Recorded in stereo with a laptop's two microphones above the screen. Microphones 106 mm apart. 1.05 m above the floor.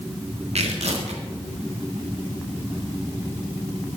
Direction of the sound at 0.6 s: 85° right.